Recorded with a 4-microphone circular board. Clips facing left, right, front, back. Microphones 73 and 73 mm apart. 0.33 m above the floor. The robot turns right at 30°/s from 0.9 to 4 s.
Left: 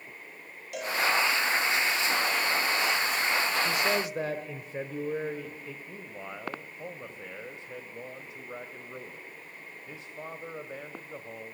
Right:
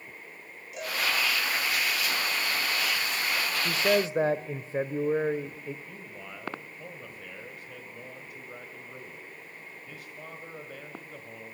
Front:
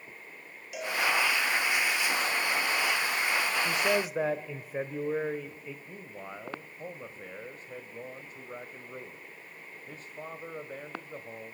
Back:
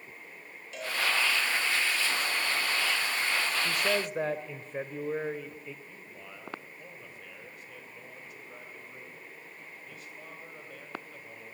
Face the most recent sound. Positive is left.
turn(degrees=35)